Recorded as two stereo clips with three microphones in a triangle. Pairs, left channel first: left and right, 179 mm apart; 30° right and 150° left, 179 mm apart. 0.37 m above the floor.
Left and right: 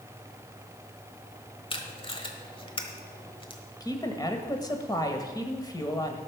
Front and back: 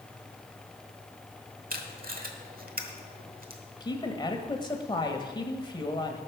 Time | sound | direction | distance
1.7 | tape being pulled | 140° left | 1.2 m
3.8 | a woman speaking | 25° left | 1.4 m